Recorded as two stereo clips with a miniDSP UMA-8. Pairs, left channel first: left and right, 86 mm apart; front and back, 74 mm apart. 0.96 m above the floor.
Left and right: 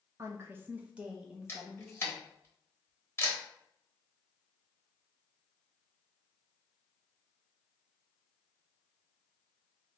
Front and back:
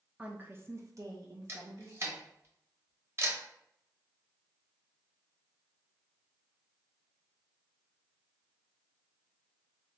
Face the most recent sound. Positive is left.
turn(degrees=140)